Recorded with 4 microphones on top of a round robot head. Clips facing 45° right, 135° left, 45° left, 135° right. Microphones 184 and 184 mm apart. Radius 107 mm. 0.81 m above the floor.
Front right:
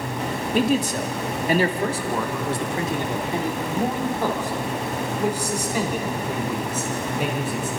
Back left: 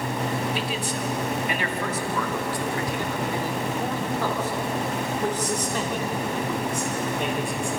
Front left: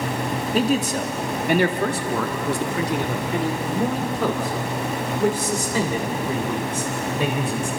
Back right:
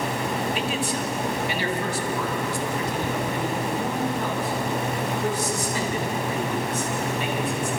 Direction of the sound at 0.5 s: 5° right.